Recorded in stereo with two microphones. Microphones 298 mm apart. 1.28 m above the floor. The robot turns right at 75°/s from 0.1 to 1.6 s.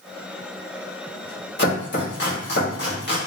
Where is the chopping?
35° left (ahead or behind), 1.4 m.